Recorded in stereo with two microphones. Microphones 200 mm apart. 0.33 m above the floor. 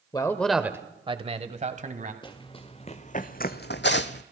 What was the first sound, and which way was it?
A man speaking, 20° left (ahead or behind).